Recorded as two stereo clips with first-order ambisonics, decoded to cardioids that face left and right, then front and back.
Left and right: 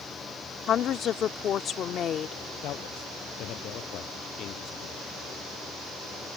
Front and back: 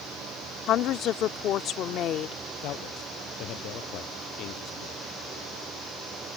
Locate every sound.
0.7 s a woman speaking: 40° left
2.6 s a man speaking: 45° left